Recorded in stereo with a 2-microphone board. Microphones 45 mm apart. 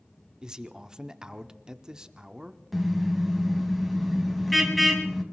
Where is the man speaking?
15° right (ahead or behind), 0.9 m.